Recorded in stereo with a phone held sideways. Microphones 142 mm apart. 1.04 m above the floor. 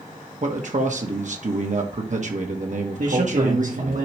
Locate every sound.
0.4 s a man speaking: 60° right (ahead or behind), 1.2 m
3.0 s a man speaking: 65° right (ahead or behind), 1.5 m